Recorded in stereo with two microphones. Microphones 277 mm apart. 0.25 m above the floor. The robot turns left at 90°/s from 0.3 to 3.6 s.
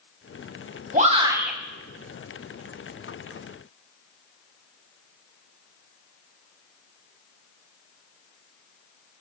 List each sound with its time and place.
0.9 s a shout: 125° right, 2.0 m; by 1.6 s straight behind, 2.0 m